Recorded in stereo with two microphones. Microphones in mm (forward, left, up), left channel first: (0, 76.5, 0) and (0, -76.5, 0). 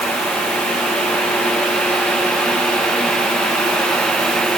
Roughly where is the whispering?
No whispering in this recording.